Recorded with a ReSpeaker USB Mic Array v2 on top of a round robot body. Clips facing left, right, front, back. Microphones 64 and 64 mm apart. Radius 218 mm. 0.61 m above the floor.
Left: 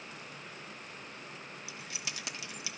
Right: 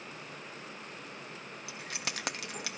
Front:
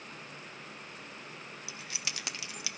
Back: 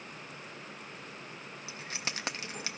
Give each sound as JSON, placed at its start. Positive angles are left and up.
{"t": 1.7, "sound": "keys jangling", "azimuth_deg": -125, "distance_m": 0.8}